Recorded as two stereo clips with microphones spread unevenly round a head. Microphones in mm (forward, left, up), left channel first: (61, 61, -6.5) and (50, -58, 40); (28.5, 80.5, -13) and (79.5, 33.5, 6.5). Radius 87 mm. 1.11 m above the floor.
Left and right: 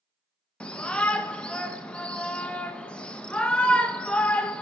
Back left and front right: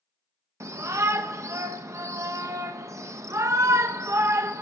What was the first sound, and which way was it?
A shout, 10° left.